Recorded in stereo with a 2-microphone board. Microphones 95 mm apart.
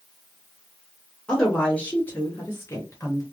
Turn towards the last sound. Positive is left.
turn(degrees=30)  # may be behind; listen again after turning